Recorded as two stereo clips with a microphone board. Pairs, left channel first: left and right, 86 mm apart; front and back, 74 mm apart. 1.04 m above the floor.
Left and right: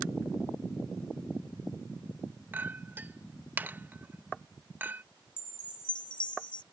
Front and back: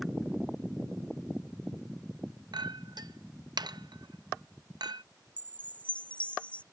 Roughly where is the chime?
Left.